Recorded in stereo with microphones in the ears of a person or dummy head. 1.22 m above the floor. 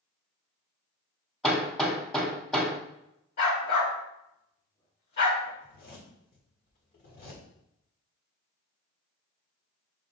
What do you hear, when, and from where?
1.4 s hammering: centre (ahead or behind), 1.4 m
3.4 s a dog barking: 50° left (ahead or behind), 1.8 m
5.6 s a zipper: 45° left (ahead or behind), 1.3 m